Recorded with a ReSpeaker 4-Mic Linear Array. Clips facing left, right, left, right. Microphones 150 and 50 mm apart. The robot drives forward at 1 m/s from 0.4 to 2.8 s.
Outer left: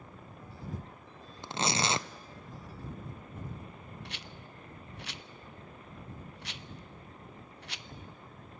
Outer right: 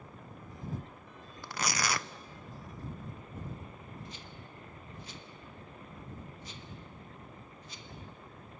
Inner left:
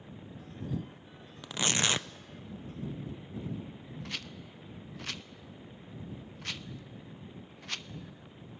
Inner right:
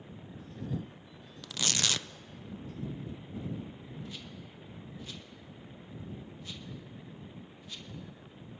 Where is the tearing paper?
20° left (ahead or behind), 0.6 m.